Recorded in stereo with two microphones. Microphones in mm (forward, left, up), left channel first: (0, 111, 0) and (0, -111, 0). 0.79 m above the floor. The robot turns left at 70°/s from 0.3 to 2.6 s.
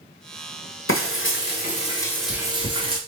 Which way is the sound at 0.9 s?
95° left.